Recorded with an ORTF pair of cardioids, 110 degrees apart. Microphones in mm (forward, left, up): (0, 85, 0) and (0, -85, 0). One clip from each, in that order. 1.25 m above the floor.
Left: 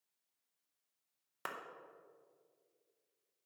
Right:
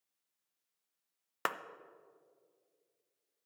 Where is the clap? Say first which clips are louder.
Right 8 dB; 45° right, 0.7 m.